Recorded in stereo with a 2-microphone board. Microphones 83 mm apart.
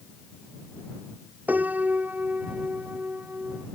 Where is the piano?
20° right (ahead or behind).